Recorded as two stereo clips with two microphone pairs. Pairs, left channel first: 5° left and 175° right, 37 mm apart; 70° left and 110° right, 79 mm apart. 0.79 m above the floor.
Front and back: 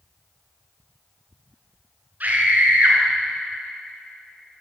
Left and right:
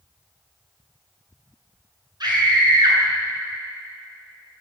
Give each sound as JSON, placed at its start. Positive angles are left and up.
{"t": 2.2, "sound": "a scream", "azimuth_deg": -135, "distance_m": 9.0}